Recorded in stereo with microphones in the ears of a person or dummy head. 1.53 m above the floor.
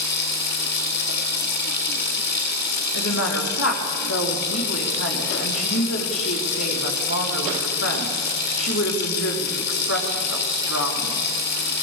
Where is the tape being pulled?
I don't hear tape being pulled.